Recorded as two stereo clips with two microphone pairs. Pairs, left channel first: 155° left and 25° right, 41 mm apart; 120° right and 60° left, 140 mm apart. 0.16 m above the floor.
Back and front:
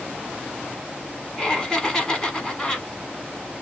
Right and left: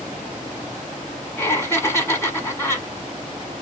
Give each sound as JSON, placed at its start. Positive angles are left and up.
{"t": 1.4, "sound": "laughter", "azimuth_deg": -160, "distance_m": 1.1}